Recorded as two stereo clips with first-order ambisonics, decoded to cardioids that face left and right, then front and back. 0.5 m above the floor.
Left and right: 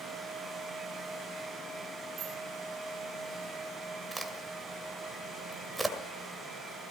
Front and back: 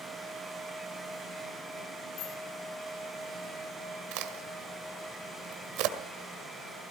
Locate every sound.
2.2 s a bicycle bell: 35° right, 4 m
4.1 s a crack: 175° right, 1.7 m